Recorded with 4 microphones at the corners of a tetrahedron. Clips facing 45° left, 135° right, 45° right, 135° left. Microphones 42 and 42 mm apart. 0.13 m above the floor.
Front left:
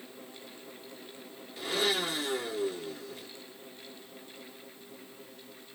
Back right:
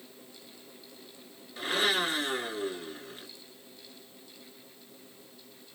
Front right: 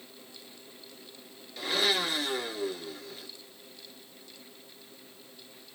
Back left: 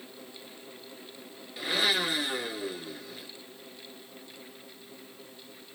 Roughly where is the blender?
Behind right.